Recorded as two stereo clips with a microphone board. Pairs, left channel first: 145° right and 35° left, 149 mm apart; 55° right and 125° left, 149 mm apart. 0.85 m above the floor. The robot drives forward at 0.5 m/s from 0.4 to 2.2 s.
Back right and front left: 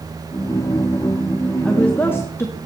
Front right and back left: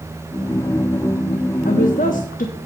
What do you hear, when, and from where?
1.6 s a woman speaking: 60° right, 1.1 m; by 2.5 s 75° right, 1.0 m